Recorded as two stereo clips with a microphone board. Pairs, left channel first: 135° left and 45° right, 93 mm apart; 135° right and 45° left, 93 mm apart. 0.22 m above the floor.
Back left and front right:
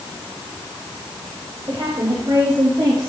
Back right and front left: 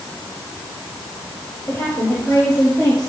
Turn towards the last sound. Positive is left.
turn(degrees=-70)